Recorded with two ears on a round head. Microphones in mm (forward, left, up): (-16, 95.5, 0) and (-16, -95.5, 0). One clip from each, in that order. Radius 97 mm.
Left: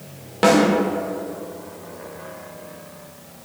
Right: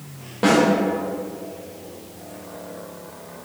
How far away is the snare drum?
About 2.0 m.